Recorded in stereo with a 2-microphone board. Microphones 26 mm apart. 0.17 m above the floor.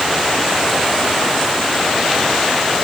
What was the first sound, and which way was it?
Only background noise.